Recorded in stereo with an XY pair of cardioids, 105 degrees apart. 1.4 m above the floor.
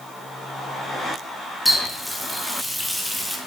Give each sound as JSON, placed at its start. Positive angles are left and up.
{"t": 1.6, "sound": "a running tap", "azimuth_deg": 0, "distance_m": 2.0}